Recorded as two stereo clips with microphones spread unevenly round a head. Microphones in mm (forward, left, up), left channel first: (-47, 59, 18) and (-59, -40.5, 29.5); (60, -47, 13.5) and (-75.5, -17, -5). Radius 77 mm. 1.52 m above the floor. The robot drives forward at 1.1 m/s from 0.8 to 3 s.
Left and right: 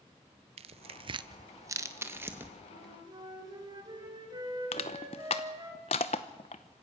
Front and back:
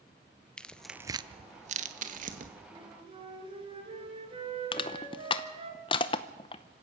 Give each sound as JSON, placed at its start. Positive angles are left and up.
{"t": 0.6, "sound": "tearing paper", "azimuth_deg": -90, "distance_m": 0.6}
{"t": 2.7, "sound": "a flute", "azimuth_deg": -135, "distance_m": 3.5}
{"t": 4.7, "sound": "crushing", "azimuth_deg": 35, "distance_m": 0.7}